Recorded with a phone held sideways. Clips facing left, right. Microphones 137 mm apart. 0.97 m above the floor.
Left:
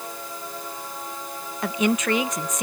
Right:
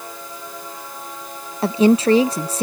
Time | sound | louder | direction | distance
1.6 | a woman speaking | right 8 dB | 30° right (ahead or behind) | ?